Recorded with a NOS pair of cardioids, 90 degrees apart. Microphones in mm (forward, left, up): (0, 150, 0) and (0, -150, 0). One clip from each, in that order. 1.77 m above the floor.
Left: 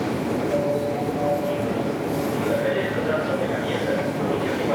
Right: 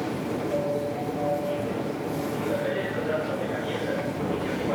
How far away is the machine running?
About 1.0 m.